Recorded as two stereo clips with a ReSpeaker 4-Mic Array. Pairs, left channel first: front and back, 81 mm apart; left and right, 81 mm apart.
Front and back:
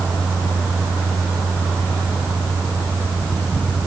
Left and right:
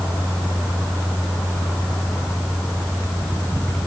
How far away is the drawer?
No drawer in this recording.